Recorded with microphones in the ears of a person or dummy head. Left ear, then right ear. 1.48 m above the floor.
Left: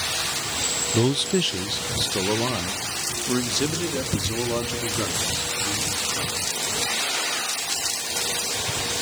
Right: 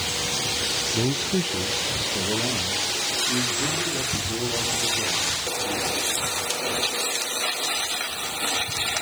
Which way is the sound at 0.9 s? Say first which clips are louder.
Left 2 dB; 75° left (ahead or behind).